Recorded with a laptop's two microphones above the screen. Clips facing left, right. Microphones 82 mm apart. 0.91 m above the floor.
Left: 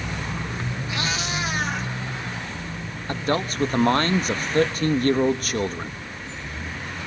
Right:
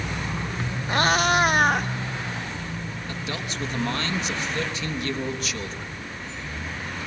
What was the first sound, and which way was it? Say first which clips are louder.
A cat meowing: right 10 dB; 45° right (ahead or behind).